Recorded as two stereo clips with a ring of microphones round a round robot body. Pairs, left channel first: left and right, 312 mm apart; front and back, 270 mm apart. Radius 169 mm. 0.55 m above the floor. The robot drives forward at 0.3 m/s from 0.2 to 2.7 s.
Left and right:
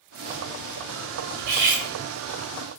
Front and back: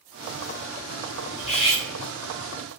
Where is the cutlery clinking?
65° right, 0.9 m; by 1.8 s 75° right, 0.9 m.